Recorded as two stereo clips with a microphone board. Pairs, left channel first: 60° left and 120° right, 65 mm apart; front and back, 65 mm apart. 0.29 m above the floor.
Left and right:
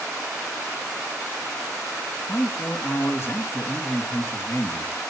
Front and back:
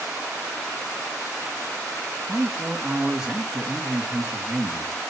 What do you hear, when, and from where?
2.3 s a man speaking: 100° left, 3 m